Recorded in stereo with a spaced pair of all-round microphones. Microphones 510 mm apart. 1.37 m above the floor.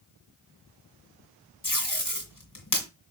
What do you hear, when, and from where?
1.6 s tape being pulled: 35° left (ahead or behind), 2.5 m